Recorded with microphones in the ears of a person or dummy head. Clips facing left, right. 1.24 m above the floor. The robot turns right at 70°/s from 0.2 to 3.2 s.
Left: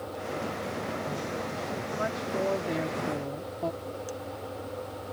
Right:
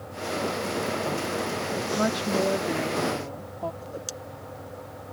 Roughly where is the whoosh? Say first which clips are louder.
Left 1 dB; right.